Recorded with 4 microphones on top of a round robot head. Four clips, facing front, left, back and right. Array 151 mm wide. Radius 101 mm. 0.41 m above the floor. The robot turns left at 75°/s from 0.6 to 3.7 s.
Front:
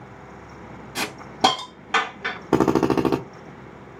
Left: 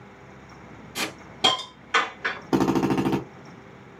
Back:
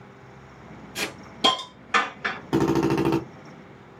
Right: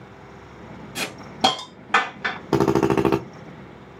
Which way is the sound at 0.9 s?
5° left.